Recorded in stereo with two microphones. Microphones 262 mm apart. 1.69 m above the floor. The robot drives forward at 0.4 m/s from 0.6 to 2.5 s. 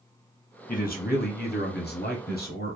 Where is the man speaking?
35° left (ahead or behind), 0.8 m.